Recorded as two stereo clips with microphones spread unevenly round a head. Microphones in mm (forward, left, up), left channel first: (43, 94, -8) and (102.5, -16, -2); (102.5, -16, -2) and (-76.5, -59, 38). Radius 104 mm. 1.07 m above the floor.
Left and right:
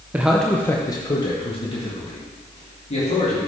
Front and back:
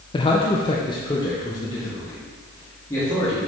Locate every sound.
0.1 s a man speaking: 10° left, 0.6 m; by 3.4 s 90° left, 2.5 m